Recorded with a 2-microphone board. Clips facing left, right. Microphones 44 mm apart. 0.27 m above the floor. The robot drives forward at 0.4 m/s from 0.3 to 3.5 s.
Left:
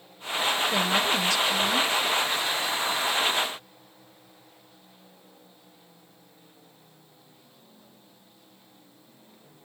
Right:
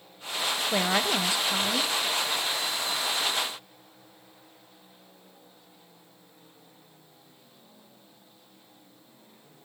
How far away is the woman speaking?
About 1.0 m.